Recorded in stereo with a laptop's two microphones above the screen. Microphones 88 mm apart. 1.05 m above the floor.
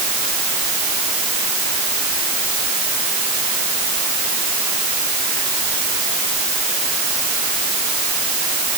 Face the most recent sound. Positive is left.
No sound to turn to.